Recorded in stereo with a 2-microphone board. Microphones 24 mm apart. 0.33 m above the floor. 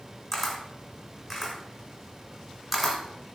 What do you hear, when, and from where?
0.3 s a camera shutter: 5° left (ahead or behind), 1.0 m